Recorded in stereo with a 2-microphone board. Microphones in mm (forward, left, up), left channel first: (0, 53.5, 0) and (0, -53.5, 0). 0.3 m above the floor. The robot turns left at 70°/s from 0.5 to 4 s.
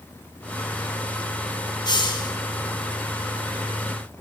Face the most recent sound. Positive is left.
turn(degrees=-45)